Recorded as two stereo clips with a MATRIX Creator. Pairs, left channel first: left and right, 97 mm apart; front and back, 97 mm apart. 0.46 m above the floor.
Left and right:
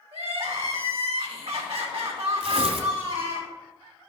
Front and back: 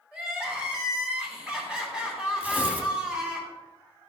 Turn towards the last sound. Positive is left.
turn(degrees=-105)